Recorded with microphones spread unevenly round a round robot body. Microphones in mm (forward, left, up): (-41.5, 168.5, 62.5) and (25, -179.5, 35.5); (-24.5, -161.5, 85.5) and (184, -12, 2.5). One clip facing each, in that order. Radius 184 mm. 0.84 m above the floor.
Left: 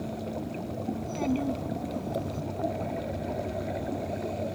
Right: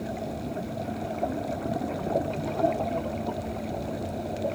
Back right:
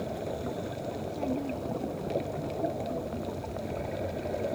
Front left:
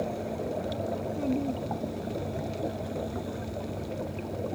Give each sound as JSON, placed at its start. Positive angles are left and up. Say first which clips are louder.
{"t": 0.9, "sound": "a child speaking", "louder": "left 4 dB, front left 3 dB", "azimuth_deg": 110}